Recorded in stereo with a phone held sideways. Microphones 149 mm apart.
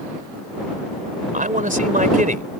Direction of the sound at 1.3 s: 65° right (ahead or behind).